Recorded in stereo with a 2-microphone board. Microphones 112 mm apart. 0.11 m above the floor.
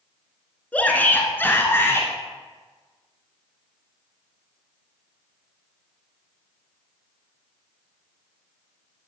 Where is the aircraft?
I don't hear an aircraft.